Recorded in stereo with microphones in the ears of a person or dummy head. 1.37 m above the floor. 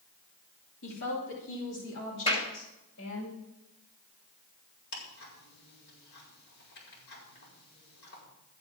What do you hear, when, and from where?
0.8 s a woman speaking: 75° left (ahead or behind), 3 m; by 3.3 s 60° left (ahead or behind), 6.5 m
2.3 s a clap: 35° left (ahead or behind), 3 m
4.9 s ticking: 55° left (ahead or behind), 5.5 m